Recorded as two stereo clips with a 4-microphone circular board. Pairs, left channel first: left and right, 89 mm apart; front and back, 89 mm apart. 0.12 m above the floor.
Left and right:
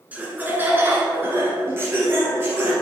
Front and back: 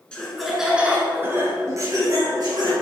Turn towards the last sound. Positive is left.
turn(degrees=-150)